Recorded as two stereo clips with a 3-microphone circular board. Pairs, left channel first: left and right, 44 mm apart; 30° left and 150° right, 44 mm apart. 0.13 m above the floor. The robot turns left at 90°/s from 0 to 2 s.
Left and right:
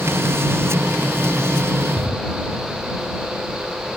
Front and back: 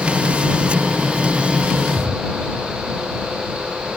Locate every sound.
2.0 s a drawer: 165° right; by 2.2 s 170° right